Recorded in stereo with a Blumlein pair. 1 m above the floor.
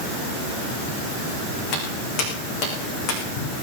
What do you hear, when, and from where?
1.7 s footsteps: 35° left, 4.5 m